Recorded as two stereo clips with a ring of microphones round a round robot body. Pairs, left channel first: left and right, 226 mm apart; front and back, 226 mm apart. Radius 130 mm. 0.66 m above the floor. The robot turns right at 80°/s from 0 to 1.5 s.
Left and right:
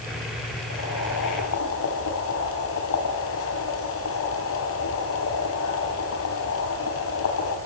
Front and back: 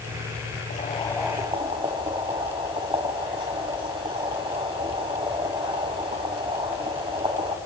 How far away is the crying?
I don't hear crying.